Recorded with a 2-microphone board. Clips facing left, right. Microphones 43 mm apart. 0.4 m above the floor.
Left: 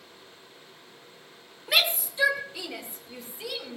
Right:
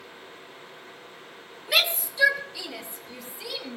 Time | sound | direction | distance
1.7 | a shout | 20° left (ahead or behind) | 1.4 m